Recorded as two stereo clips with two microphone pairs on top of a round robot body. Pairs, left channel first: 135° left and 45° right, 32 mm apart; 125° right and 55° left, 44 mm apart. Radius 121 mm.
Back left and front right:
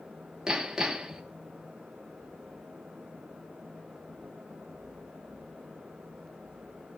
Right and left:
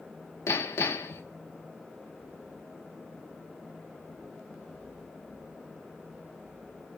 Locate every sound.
0.5 s hammering: 120° right, 0.9 m